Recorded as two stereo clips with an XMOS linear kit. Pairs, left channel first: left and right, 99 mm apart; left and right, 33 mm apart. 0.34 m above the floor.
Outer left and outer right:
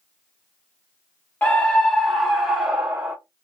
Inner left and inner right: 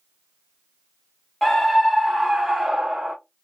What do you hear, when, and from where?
1.4 s a scream: 15° left (ahead or behind), 1.4 m; by 3.1 s 20° right (ahead or behind), 1.3 m